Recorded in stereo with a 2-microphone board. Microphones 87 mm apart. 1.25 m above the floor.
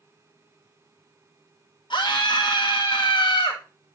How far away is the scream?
About 1.2 m.